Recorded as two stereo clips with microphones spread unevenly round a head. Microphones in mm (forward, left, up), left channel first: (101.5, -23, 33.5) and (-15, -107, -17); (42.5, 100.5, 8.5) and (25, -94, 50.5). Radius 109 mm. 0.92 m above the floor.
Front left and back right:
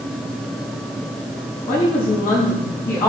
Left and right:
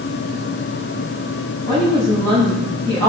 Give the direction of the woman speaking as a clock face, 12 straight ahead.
11 o'clock.